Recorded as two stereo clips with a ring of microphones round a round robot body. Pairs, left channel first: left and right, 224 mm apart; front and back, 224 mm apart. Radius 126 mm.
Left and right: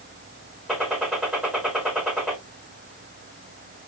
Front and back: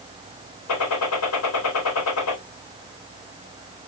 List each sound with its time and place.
0.7 s a gunshot: 5° right, 4 m